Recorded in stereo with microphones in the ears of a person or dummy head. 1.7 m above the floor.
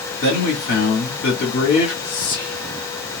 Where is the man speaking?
55° left (ahead or behind), 1.5 m.